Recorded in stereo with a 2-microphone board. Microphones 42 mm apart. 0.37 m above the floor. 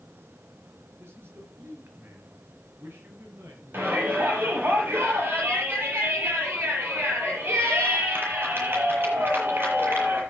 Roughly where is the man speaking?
Right.